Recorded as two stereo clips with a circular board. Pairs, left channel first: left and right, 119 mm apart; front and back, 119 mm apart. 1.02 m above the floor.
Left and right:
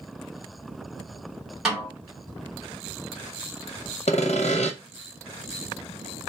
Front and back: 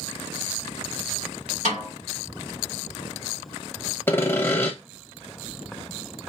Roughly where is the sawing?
Left.